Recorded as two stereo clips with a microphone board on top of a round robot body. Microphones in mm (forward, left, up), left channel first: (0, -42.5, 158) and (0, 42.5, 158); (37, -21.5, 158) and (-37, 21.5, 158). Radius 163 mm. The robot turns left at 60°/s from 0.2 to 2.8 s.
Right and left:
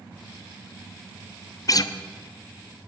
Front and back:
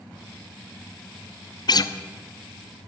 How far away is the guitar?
About 0.9 m.